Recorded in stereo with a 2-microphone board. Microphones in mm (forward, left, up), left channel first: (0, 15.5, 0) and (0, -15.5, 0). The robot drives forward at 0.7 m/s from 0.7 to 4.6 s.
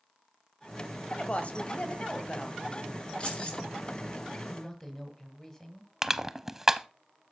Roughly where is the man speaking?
Centre.